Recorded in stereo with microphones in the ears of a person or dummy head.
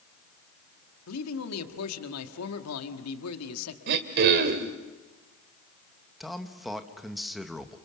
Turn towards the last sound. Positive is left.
turn(degrees=0)  # may be behind; listen again after turning